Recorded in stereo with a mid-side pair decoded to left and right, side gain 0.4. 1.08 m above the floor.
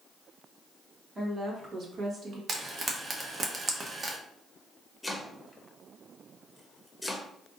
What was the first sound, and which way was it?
A woman speaking, 35° right.